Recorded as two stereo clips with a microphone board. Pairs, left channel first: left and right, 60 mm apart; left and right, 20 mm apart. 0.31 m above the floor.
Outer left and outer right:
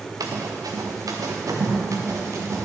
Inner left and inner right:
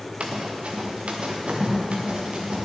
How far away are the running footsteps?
About 1.6 m.